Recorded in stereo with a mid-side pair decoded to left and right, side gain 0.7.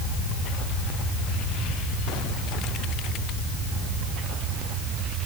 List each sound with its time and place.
Only background noise.